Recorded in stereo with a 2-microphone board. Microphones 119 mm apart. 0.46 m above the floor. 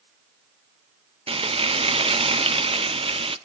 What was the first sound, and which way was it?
Frying, 55° right (ahead or behind).